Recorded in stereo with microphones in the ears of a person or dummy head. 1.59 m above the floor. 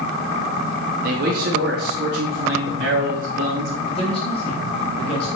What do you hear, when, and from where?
1.0 s a man speaking: 55° right (ahead or behind), 2.5 m; by 3.8 s 65° right (ahead or behind), 4 m
3.9 s a man speaking: 35° left (ahead or behind), 5.5 m